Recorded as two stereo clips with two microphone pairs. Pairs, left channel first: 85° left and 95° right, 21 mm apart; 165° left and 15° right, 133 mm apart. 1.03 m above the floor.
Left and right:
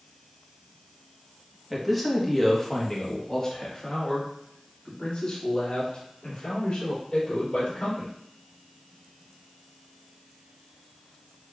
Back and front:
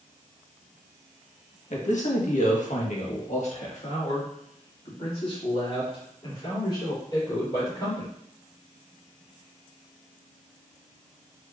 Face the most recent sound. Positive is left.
turn(degrees=105)